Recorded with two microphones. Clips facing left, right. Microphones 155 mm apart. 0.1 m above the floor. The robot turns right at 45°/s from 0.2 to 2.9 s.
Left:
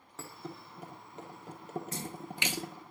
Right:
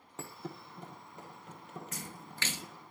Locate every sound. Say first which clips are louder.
0.2 s a thud: even; 15° right (ahead or behind), 1.3 m; by 2.9 s 65° left (ahead or behind), 1.3 m
1.9 s a splash: left 6 dB; 30° left (ahead or behind), 0.6 m; by 2.6 s 10° left (ahead or behind), 0.6 m